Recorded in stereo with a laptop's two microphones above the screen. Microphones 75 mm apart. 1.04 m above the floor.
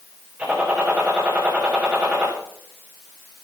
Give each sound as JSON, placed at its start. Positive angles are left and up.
{"t": 0.4, "sound": "a gunshot", "side_deg": -15, "distance_m": 7.0}